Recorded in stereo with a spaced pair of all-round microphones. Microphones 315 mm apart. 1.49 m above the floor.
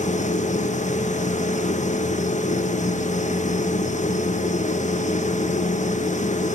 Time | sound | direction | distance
0.0 | a machine running | 25° left (ahead or behind) | 1.3 m